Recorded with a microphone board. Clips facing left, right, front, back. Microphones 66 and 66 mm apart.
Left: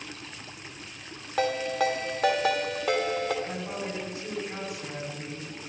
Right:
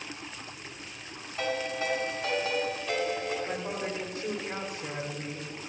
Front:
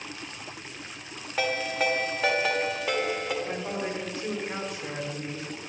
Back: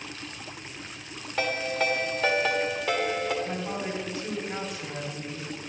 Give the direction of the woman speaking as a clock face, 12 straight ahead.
1 o'clock.